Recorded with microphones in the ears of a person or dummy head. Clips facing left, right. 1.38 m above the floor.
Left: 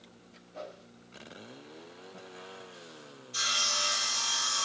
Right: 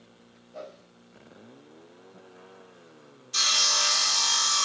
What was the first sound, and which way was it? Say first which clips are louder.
A whoosh: right 2 dB; 65° right (ahead or behind).